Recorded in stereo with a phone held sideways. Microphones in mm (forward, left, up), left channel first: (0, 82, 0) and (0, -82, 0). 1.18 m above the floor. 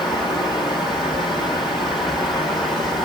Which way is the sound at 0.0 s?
Centre (ahead or behind).